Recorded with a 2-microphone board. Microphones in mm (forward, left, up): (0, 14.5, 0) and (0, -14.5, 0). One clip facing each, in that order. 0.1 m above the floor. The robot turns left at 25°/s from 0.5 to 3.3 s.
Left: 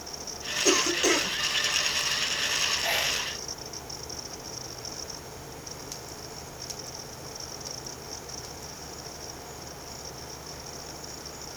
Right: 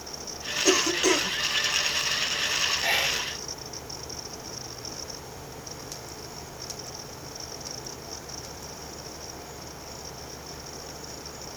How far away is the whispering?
About 1.2 m.